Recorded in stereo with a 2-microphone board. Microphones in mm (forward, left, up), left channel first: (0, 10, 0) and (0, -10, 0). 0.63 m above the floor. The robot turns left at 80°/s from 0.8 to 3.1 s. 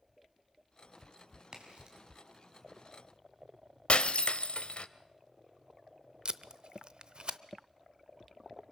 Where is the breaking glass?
75° left (ahead or behind), 0.8 m.